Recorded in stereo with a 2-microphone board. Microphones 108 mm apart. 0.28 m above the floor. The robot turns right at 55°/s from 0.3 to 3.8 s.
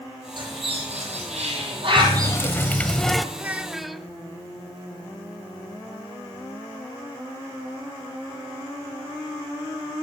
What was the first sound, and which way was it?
A bird, 45° right (ahead or behind).